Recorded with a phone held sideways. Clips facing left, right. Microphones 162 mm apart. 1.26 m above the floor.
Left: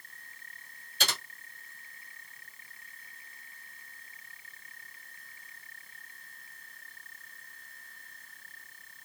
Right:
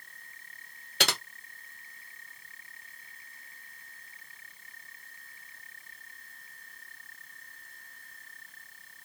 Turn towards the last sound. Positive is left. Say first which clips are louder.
# right 5 dB
turn(degrees=-70)  # may be behind; listen again after turning